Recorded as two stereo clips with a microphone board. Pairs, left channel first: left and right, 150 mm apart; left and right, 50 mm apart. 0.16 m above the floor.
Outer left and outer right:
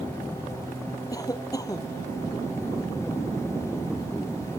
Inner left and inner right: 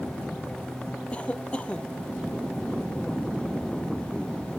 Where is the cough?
25° left (ahead or behind).